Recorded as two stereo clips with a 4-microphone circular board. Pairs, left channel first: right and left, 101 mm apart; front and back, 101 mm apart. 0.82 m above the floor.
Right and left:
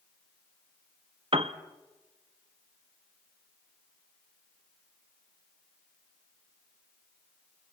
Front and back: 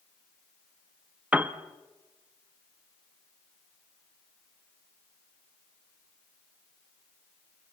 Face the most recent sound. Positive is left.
turn(degrees=105)